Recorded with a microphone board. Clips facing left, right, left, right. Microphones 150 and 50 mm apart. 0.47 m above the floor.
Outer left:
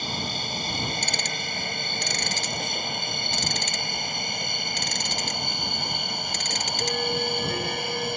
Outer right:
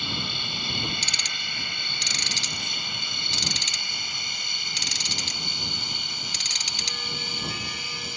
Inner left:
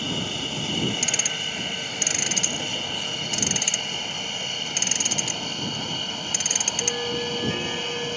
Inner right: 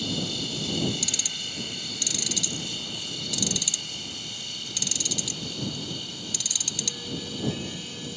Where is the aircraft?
40° left (ahead or behind); by 8.2 s 60° left (ahead or behind).